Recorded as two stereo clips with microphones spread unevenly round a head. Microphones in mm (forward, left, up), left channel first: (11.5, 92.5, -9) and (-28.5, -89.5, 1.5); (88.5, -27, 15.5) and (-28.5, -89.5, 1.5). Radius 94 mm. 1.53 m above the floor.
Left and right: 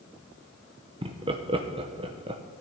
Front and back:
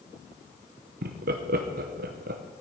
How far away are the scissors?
No scissors in this recording.